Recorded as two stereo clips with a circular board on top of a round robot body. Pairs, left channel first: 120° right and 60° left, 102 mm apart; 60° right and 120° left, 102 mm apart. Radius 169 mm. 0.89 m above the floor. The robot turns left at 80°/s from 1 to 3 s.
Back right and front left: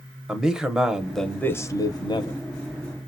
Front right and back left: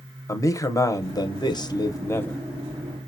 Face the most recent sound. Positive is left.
turn(degrees=180)